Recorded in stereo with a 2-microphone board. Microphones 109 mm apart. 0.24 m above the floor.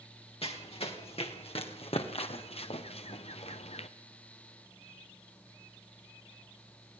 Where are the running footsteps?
55° left (ahead or behind), 4.5 m; by 3.9 s 65° left (ahead or behind), 1.5 m.